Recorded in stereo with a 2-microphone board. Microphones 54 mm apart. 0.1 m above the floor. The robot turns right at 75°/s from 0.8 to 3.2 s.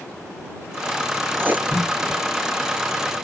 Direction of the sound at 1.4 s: 40° right (ahead or behind).